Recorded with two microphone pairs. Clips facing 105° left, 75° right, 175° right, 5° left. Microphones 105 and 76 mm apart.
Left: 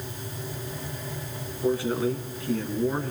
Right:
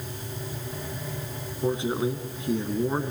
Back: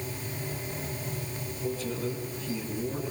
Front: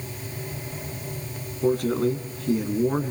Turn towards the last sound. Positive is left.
turn(degrees=-5)